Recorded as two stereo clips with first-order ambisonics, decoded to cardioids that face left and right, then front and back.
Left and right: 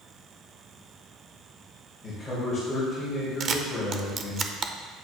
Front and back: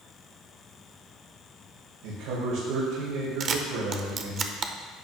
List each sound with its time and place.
2.0 s a man speaking: 170° left, 3.5 m
3.4 s a camera shutter: 140° right, 0.5 m